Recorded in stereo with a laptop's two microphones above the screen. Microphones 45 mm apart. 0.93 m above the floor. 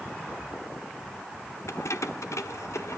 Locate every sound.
1.7 s keys jangling: 70° left (ahead or behind), 1.2 m; by 3.0 s 80° left, 2 m